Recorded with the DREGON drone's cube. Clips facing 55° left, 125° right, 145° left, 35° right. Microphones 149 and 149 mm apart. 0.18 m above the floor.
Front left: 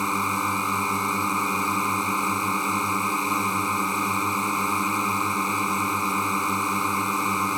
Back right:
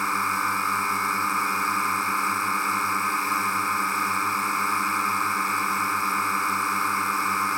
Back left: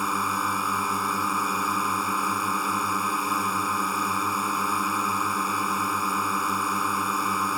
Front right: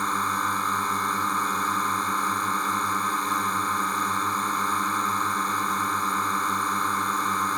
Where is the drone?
80° left.